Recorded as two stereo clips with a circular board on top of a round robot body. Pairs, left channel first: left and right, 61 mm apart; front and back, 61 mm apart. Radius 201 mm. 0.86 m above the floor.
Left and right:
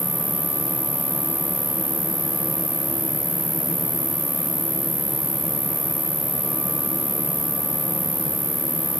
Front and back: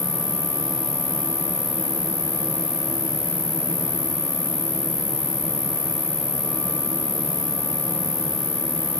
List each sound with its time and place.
0.0 s an insect: 5° right